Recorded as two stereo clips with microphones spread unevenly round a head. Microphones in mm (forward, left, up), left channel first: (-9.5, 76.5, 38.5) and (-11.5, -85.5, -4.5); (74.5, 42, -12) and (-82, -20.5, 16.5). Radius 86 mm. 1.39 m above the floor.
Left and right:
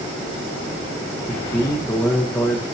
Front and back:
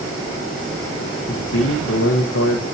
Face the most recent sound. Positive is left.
turn(degrees=10)